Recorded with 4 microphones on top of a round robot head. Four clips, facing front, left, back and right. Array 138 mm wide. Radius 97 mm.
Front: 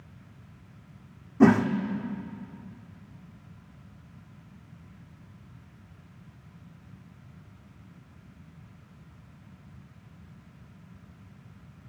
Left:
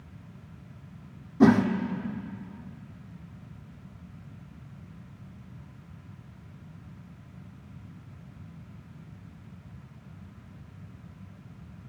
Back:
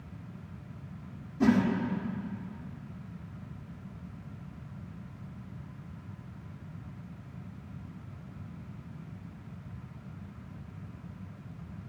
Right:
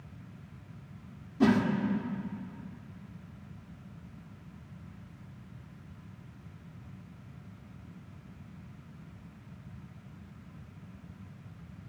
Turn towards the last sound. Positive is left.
turn(degrees=35)